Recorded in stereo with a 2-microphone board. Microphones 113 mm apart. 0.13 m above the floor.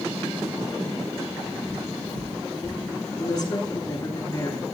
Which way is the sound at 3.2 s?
35° left (ahead or behind).